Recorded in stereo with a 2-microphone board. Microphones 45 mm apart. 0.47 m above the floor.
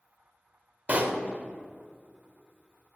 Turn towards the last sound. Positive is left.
turn(degrees=-35)  # may be behind; listen again after turning